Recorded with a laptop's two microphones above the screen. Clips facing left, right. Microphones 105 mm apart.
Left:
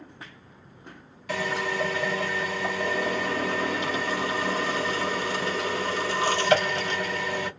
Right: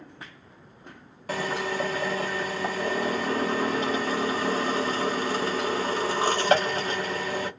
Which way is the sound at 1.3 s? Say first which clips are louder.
Even; 40° right (ahead or behind).